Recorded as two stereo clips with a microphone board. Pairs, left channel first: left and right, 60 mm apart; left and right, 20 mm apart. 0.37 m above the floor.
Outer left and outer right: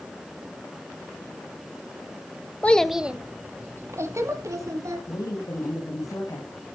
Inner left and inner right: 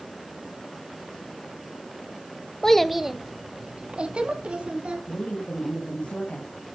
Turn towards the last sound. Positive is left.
turn(degrees=60)  # may be behind; listen again after turning